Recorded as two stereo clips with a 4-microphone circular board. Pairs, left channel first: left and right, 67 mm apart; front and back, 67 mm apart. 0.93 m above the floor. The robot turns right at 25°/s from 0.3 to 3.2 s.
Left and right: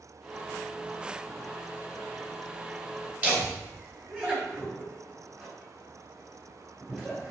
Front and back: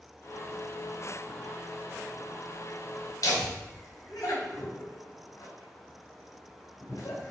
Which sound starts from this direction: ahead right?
Laughter, at 3.2 s.